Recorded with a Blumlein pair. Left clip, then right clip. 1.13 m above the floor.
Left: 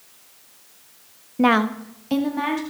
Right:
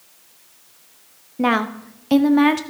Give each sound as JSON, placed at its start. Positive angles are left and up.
{"t": 1.4, "sound": "a woman speaking", "azimuth_deg": 5, "distance_m": 0.8}